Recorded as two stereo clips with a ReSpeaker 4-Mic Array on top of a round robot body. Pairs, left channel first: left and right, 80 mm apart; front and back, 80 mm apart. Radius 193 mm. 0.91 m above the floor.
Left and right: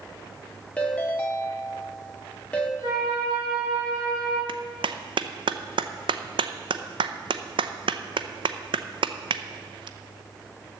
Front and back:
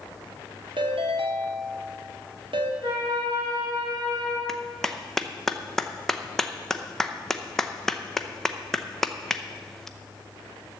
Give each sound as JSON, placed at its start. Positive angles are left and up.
{"t": 0.8, "sound": "a ringtone", "azimuth_deg": 165, "distance_m": 0.9}
{"t": 2.8, "sound": "a flute", "azimuth_deg": -135, "distance_m": 4.5}
{"t": 4.5, "sound": "a clap", "azimuth_deg": -85, "distance_m": 0.7}